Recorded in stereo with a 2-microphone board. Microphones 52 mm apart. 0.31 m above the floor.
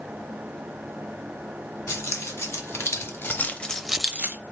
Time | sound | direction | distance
1.9 | keys jangling | 75° left (ahead or behind) | 2 m